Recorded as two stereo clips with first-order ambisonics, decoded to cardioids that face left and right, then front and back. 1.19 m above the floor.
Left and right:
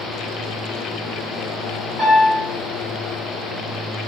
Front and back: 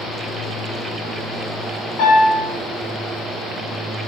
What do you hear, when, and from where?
2.0 s a piano: 10° right, 1.4 m